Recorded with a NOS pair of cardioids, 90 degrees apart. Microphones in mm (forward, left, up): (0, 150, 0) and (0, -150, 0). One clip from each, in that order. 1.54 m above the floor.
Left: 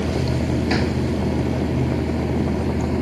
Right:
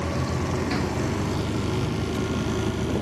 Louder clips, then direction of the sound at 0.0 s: Left 4 dB; 55° left.